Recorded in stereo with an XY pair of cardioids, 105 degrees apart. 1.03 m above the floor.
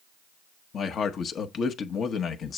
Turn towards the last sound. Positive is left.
turn(degrees=55)